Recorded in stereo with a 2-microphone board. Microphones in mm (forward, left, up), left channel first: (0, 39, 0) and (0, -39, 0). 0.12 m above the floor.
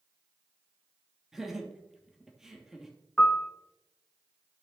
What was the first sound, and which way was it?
Laughter, 5° right (ahead or behind).